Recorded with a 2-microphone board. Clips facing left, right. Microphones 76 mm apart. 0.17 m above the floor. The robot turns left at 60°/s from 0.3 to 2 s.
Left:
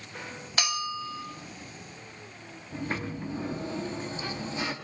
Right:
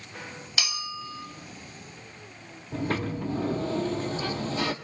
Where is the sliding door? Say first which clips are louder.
Right 4 dB; 65° right (ahead or behind), 1.4 m.